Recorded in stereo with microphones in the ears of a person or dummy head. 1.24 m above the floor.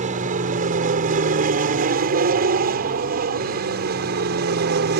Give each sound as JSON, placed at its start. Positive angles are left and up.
{"t": 0.0, "sound": "an aircraft", "side_deg": -40}